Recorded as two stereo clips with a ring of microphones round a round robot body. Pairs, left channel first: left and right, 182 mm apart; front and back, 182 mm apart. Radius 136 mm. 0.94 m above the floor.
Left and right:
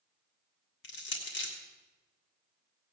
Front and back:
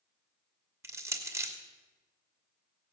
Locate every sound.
0.8 s crushing: 105° left, 2.5 m